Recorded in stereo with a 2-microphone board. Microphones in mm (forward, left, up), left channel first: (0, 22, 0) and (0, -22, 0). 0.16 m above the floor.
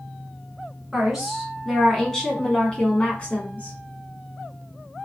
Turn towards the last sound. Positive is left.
turn(degrees=35)  # may be behind; listen again after turning